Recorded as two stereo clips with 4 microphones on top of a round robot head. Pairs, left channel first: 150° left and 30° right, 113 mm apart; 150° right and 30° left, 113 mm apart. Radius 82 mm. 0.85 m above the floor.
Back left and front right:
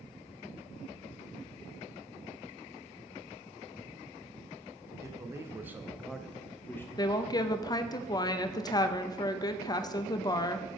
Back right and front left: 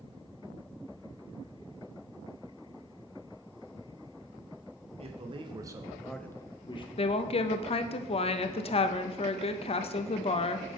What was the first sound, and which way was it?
A man speaking, 30° left.